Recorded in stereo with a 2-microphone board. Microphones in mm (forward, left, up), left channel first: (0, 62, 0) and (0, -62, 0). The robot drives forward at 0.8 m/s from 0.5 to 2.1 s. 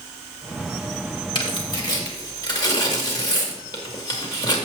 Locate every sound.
1.4 s tearing paper: 40° left (ahead or behind), 2.0 m; by 4.7 s 35° left (ahead or behind), 2.5 m